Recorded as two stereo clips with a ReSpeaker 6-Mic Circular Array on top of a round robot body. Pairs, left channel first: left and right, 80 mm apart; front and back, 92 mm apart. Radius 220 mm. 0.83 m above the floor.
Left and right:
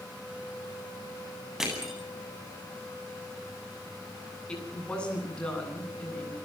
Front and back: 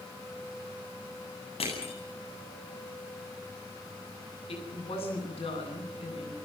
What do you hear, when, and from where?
1.6 s crushing: 5° right, 9 m
4.5 s a woman speaking: 15° left, 9.5 m